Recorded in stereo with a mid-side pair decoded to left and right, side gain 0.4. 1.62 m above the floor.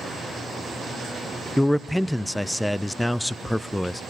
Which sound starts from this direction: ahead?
A man speaking, at 1.6 s.